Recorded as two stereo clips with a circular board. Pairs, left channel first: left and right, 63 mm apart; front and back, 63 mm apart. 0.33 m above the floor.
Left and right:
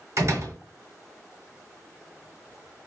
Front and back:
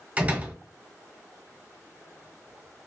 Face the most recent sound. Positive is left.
turn(degrees=-115)